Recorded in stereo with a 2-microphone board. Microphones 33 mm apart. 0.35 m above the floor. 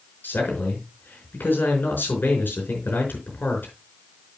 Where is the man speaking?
75° left (ahead or behind), 4.5 m.